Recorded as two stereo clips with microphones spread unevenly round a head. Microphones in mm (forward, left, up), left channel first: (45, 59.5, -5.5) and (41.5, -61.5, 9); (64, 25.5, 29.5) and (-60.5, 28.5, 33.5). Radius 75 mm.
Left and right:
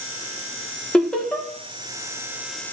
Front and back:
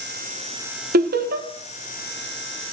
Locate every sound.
0.9 s laughter: 170° left, 1.1 m